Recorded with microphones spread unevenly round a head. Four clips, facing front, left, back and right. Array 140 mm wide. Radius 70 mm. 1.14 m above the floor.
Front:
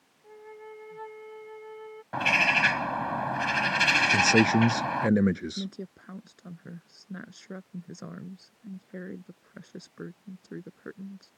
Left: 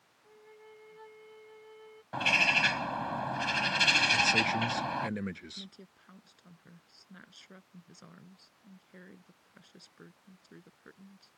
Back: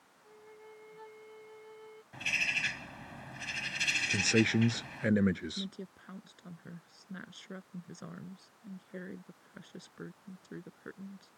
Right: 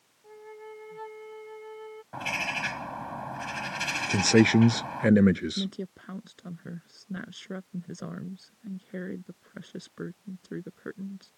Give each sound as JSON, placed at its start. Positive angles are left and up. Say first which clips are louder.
{"t": 0.2, "sound": "a flute", "louder": "right 10 dB, front 9 dB", "azimuth_deg": -45}
{"t": 2.1, "sound": "a bird", "louder": "left 3 dB, front 14 dB", "azimuth_deg": 10}
{"t": 4.1, "sound": "a man speaking", "louder": "right 9 dB, front 6 dB", "azimuth_deg": -65}
{"t": 5.6, "sound": "a woman speaking", "louder": "right 17 dB, front 5 dB", "azimuth_deg": -65}